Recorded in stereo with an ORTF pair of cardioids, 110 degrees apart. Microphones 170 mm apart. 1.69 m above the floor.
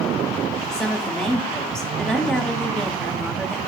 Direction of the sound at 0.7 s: 5° left.